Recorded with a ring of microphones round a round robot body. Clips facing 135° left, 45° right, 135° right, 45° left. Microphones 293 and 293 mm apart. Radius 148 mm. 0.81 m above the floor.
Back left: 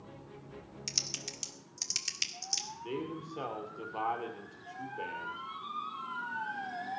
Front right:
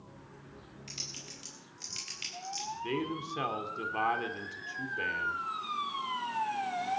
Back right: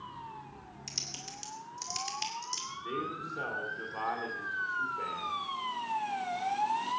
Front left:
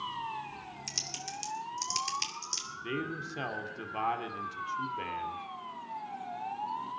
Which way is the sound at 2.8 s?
5° left.